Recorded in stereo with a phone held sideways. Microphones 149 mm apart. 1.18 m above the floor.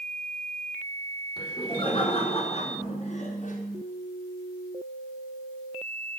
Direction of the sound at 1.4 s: 30° left (ahead or behind).